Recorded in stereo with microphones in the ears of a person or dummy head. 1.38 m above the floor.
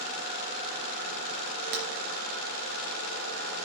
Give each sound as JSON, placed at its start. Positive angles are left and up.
{"t": 1.7, "sound": "breaking glass", "side_deg": -55, "distance_m": 3.0}